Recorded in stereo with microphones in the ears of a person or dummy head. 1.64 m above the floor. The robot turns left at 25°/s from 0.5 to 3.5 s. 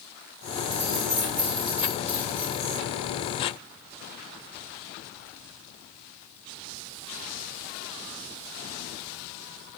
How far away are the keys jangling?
About 1.8 m.